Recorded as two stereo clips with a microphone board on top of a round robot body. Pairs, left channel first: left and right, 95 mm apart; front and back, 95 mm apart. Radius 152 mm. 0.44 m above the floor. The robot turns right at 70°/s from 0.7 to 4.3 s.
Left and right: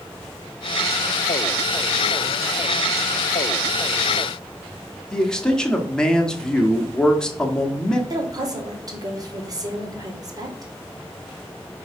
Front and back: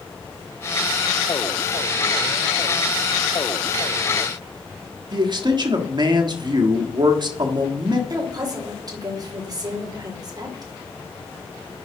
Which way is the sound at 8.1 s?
135° right.